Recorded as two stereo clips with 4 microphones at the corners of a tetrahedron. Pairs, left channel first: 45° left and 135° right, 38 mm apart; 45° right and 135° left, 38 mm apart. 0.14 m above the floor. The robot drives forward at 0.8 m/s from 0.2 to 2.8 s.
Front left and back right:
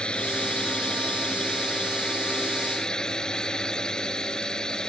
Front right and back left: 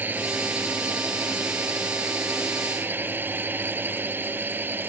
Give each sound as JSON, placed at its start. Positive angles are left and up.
{"t": 0.0, "sound": "a drone", "azimuth_deg": 105}